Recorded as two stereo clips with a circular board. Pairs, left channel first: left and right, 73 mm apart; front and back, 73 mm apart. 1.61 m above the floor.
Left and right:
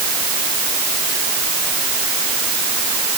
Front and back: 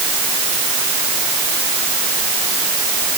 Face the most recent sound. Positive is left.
No sound to turn to.